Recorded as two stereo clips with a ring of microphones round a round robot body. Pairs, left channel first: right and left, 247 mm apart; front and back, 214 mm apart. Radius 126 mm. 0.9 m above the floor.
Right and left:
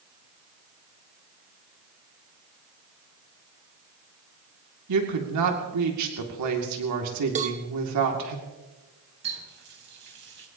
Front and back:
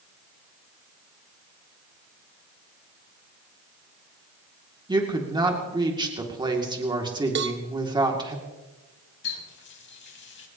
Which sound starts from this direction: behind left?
A cowbell, at 7.3 s.